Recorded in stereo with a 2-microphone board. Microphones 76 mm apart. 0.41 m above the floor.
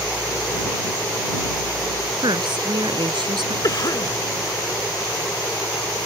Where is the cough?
55° left (ahead or behind).